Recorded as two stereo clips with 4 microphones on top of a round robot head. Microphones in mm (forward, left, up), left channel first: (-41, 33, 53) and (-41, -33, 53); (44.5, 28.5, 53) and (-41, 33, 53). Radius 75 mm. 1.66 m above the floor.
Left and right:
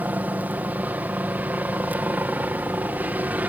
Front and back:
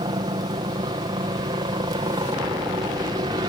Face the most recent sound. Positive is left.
turn(degrees=-150)